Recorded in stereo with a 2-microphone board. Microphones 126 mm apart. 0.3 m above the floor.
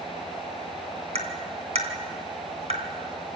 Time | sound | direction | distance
1.1 | tapping | 60° right (ahead or behind) | 2.5 m